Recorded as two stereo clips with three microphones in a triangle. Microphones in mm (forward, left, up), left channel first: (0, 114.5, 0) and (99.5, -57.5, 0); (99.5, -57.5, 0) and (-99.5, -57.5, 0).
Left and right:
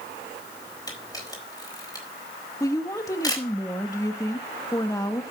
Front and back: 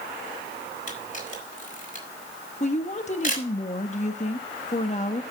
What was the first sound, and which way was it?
A camera shutter, 45° left.